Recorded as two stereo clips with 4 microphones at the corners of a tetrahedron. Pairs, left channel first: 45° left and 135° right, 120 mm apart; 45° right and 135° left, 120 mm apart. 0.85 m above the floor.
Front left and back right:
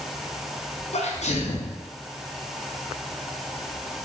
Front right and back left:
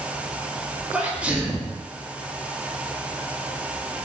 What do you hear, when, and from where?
0.9 s a sneeze: 55° left, 0.6 m